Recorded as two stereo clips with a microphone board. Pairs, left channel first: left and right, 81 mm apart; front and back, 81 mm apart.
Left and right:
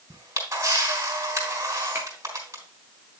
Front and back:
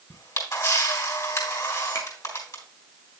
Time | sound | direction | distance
0.1 | a camera shutter | 40° right | 4 m
1.9 | a finger snap | 25° right | 1.7 m